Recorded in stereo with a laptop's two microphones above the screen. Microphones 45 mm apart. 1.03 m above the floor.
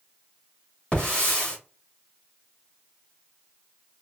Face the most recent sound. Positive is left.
turn(degrees=25)  # may be behind; listen again after turning